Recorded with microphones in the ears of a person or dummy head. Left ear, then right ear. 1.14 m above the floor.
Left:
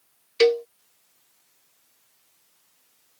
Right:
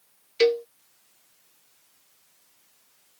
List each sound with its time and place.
0.4 s a cowbell: 15° left (ahead or behind)